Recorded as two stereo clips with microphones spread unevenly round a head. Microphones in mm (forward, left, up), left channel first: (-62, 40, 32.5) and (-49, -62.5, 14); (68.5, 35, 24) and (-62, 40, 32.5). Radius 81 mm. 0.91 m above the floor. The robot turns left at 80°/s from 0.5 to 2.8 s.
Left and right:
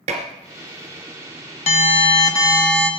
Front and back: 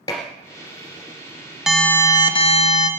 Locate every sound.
0.1 s dishes clattering: 70° right, 1.8 m
1.7 s an alarm: 90° left, 1.3 m; by 2.9 s straight ahead, 1.3 m